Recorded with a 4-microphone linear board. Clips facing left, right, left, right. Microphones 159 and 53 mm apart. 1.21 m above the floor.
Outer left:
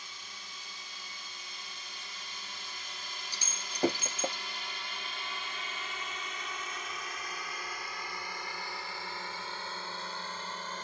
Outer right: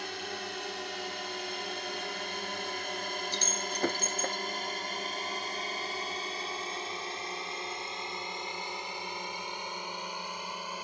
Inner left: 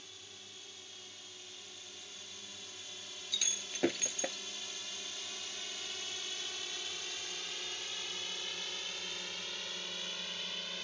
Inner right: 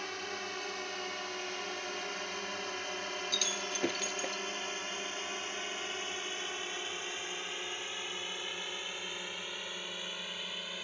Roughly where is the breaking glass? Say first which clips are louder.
Outer right 10 dB, inner right 7 dB; centre.